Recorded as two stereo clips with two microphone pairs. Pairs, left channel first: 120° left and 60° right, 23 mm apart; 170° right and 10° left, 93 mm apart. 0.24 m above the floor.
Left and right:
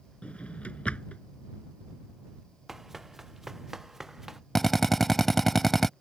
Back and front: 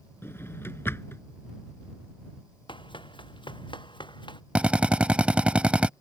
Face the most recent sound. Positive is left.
turn(degrees=55)